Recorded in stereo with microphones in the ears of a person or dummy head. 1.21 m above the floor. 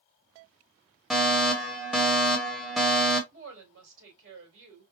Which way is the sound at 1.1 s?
Centre (ahead or behind).